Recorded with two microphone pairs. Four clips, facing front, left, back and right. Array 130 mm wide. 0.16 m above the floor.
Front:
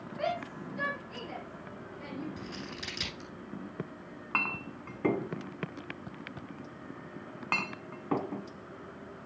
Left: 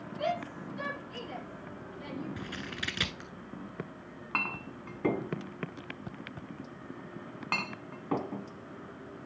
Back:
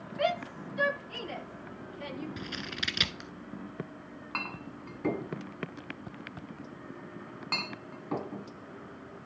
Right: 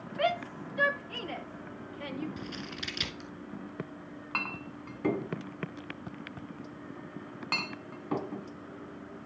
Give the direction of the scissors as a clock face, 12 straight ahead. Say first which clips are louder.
Even, back 2 dB; 7 o'clock.